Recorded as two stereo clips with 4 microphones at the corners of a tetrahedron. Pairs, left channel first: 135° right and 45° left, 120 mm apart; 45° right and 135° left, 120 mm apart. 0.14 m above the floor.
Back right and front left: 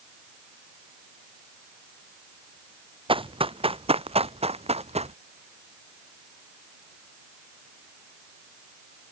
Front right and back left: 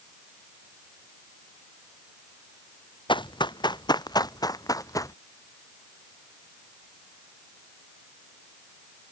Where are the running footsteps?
5° left; by 5.1 s 15° left.